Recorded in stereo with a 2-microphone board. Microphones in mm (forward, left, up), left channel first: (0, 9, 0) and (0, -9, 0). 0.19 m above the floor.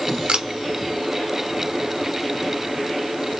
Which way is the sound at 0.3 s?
60° right (ahead or behind).